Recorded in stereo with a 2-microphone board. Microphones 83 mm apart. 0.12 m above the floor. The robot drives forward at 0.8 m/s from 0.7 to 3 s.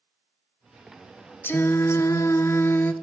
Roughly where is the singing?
Left.